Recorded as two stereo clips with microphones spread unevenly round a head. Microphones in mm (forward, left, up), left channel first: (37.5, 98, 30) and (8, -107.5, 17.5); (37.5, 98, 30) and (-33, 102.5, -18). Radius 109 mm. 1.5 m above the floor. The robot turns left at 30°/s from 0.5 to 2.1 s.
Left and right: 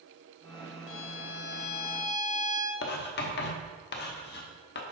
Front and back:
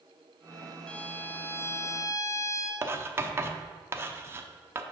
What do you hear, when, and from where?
0.9 s a violin: 65° left, 0.6 m; by 2.7 s 30° left, 0.6 m
2.8 s writing: 125° left, 0.9 m